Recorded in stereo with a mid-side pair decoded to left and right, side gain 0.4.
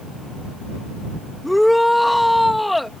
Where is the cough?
No cough in this recording.